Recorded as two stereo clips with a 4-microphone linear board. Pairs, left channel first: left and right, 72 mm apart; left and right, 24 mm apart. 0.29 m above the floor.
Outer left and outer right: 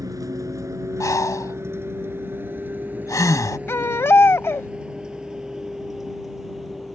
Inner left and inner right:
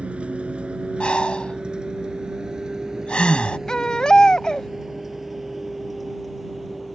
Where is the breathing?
50° left (ahead or behind).